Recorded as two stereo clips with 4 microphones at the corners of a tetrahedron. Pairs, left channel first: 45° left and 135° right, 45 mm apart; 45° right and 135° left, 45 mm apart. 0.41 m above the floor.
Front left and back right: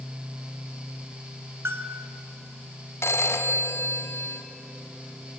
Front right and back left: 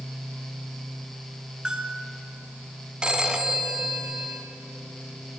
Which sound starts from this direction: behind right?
A bell, at 1.6 s.